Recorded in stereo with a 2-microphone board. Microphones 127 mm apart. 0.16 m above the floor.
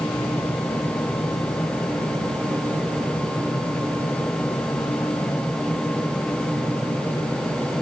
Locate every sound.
Only background noise.